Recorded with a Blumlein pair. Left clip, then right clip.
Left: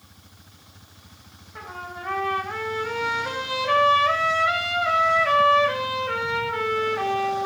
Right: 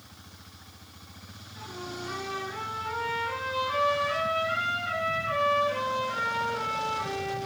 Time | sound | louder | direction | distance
1.6 | a trumpet | left 4 dB | 45° left | 4 m